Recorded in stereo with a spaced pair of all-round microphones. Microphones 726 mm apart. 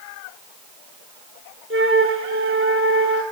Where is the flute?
15° right (ahead or behind), 3.5 m.